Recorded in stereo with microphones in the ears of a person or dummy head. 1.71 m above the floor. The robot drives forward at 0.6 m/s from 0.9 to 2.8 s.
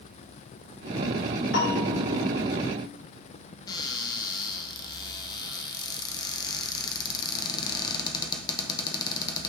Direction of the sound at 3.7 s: 25° left (ahead or behind).